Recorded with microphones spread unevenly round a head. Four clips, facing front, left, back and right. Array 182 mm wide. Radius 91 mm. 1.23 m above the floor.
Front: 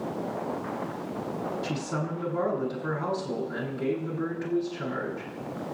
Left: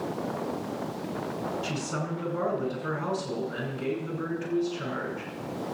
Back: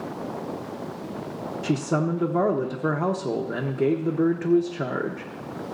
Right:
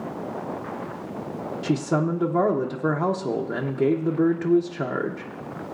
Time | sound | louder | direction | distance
1.6 | a man speaking | right 9 dB, back 7 dB | 130° right | 1.0 m